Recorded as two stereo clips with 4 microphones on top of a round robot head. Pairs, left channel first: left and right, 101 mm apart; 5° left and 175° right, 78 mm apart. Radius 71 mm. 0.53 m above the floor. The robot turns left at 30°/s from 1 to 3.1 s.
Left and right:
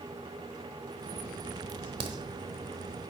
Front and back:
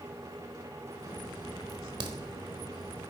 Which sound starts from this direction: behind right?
A crack, at 1.7 s.